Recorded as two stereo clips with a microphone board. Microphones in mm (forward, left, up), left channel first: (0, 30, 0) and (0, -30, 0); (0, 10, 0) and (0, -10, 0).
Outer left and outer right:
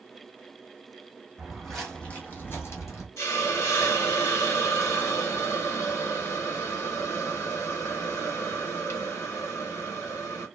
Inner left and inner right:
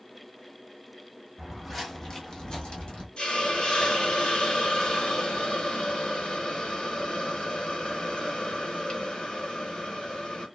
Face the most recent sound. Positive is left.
turn(degrees=50)  # may be behind; listen again after turning